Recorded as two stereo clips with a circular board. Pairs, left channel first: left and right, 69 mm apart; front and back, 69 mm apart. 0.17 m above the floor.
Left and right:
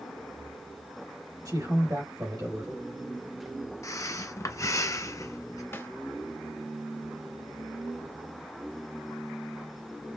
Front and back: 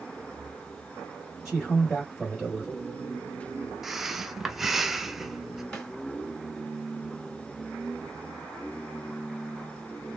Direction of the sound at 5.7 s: 75° left.